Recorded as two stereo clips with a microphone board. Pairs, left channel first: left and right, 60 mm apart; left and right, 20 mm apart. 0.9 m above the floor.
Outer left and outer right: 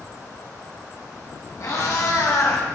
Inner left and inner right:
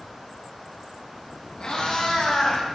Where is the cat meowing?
65° left (ahead or behind), 1.9 m; by 2.7 s 55° left (ahead or behind), 1.1 m.